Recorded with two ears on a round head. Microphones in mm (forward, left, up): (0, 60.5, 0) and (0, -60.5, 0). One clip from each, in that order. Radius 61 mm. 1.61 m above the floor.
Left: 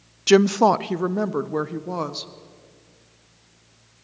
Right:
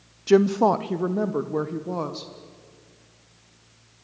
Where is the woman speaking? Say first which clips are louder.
Left 2 dB; 55° left (ahead or behind), 0.5 m; by 2.3 s 30° left (ahead or behind), 1.6 m.